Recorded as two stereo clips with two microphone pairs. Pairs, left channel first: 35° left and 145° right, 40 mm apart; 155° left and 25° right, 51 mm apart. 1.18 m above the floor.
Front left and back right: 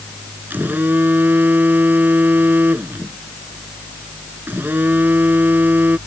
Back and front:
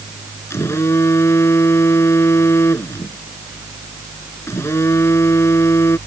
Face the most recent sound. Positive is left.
turn(degrees=-175)